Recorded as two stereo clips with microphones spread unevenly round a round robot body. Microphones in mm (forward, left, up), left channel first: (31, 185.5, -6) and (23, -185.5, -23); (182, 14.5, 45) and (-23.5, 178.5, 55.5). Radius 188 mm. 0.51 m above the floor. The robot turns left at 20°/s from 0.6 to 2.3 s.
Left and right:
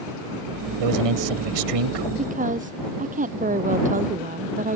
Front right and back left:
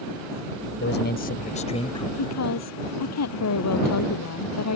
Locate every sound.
0.8 s a man speaking: 90° right; by 2.1 s 115° right
2.2 s a woman speaking: 20° right